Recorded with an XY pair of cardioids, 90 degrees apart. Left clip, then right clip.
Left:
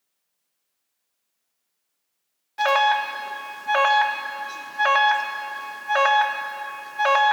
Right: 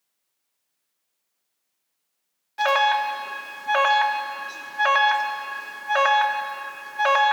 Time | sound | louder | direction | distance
2.6 | an alarm | left 1 dB | straight ahead | 1.1 m